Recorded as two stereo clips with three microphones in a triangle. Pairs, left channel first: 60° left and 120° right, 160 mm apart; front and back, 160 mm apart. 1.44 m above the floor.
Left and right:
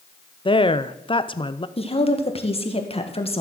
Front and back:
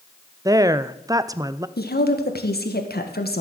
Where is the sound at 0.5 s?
115° left, 0.6 m.